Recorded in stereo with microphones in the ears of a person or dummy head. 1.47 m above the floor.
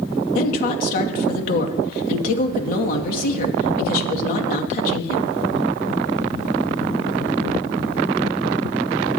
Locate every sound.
0.3 s a woman speaking: 50° left (ahead or behind), 1.8 m